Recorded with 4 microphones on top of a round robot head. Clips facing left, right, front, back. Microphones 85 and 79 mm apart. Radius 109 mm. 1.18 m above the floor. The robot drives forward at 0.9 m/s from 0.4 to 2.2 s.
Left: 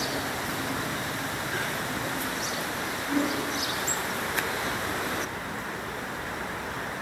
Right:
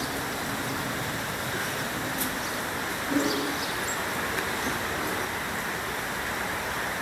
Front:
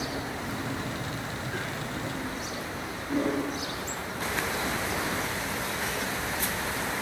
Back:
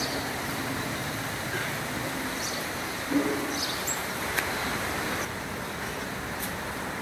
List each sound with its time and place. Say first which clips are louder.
3.1 s a whoosh: right 1 dB, back 1 dB; 135° right, 1.6 m